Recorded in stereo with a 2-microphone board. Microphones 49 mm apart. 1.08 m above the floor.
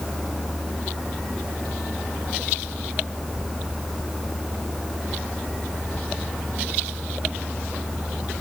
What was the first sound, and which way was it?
Only background noise.